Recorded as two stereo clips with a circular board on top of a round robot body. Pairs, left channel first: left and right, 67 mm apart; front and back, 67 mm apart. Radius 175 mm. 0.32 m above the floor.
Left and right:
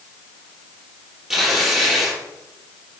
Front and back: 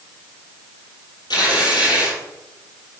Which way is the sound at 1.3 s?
5° right.